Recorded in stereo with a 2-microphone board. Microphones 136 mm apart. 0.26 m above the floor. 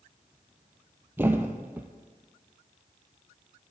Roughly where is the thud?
Centre.